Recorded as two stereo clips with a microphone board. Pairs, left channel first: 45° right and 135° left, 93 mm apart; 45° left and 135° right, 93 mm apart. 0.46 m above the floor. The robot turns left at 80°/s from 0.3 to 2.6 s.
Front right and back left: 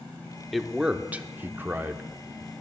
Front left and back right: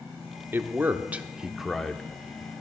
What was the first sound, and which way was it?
A man speaking, 135° right.